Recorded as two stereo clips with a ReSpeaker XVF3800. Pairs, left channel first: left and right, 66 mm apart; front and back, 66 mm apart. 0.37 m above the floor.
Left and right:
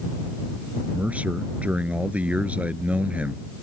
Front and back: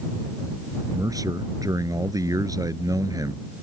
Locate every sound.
0.9 s a man speaking: 160° right